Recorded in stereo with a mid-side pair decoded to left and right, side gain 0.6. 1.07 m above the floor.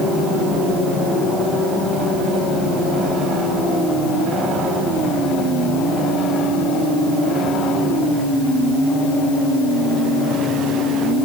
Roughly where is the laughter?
No laughter in this recording.